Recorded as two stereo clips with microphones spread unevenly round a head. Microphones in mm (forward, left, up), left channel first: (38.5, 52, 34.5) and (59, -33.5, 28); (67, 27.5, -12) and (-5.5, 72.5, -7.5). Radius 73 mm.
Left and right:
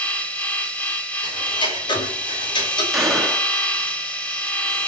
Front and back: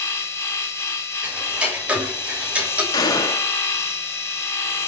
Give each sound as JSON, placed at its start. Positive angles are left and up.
{"t": 0.0, "sound": "a machine running", "azimuth_deg": 30, "distance_m": 3.0}
{"t": 1.2, "sound": "ticking", "azimuth_deg": 70, "distance_m": 6.5}
{"t": 2.9, "sound": "a gunshot", "azimuth_deg": 10, "distance_m": 3.5}